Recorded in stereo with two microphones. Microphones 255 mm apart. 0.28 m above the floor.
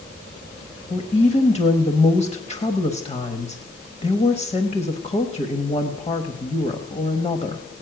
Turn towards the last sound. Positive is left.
turn(degrees=25)  # may be behind; listen again after turning